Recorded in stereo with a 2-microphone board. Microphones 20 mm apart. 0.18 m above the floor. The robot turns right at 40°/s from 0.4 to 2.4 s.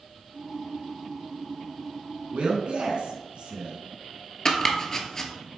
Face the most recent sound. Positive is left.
turn(degrees=25)  # may be behind; listen again after turning